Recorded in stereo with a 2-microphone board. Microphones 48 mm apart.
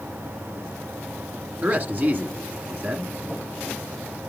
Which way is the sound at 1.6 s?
40° right (ahead or behind).